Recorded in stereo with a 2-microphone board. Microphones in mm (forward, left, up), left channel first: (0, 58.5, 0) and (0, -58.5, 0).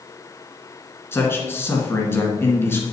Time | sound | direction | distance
1.1 | a man speaking | 20° left (ahead or behind) | 1.7 m